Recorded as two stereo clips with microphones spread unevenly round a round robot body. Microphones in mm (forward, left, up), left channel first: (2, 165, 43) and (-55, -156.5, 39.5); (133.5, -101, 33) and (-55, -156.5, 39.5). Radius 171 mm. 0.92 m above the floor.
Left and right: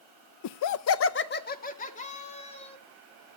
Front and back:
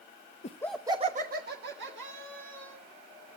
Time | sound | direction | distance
0.4 | laughter | 60° left | 0.7 m